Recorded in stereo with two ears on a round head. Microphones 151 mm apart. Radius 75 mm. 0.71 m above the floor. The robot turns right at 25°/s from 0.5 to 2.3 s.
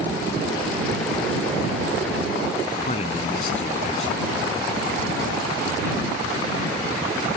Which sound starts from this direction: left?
A man speaking, at 2.9 s.